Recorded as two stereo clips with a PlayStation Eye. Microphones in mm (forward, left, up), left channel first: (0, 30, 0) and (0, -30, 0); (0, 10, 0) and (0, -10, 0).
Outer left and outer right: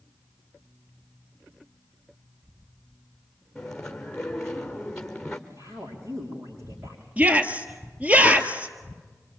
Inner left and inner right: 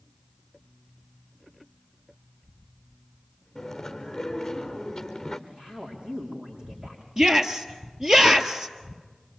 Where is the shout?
25° right (ahead or behind), 1.7 m.